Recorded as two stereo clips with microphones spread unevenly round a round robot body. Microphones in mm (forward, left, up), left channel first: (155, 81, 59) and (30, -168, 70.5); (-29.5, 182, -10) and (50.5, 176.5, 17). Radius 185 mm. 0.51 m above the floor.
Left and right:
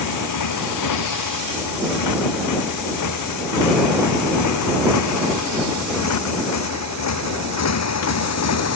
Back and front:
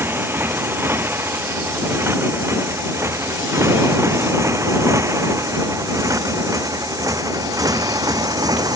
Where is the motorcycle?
60° left; by 8.8 s 35° left.